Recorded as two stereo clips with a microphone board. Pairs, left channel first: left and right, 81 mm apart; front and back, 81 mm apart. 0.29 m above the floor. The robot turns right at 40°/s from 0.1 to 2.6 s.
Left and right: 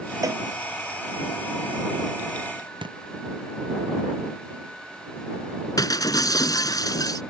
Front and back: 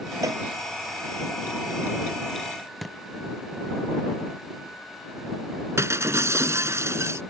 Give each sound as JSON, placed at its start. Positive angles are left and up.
{"t": 0.2, "sound": "a cowbell", "azimuth_deg": -135}
{"t": 2.8, "sound": "a thud", "azimuth_deg": -90}
{"t": 5.8, "sound": "breaking glass", "azimuth_deg": 125}